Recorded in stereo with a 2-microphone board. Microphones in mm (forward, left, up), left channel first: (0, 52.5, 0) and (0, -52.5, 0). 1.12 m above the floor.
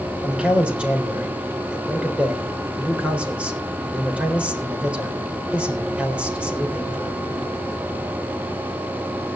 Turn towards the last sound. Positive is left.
turn(degrees=-10)  # may be behind; listen again after turning